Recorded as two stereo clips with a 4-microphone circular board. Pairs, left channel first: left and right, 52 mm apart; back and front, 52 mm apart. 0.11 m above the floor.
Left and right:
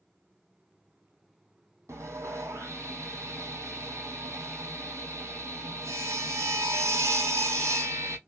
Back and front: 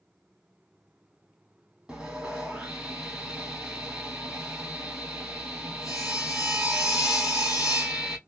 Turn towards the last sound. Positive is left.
turn(degrees=-70)